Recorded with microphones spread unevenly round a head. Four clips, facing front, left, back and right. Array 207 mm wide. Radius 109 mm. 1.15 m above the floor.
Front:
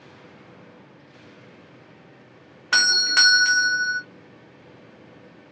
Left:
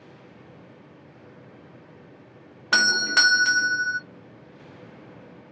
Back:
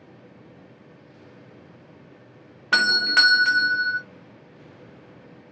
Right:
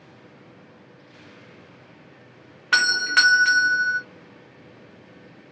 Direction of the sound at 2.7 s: 130° left.